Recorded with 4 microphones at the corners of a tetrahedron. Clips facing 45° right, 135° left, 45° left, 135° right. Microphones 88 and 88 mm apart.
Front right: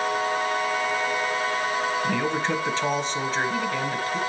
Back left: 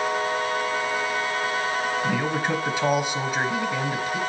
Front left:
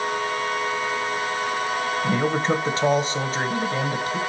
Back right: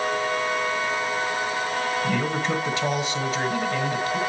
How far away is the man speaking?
About 1.2 m.